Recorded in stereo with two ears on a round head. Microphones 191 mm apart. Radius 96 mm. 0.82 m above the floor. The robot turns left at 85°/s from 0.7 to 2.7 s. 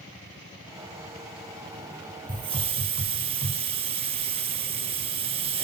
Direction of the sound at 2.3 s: 20° right (ahead or behind).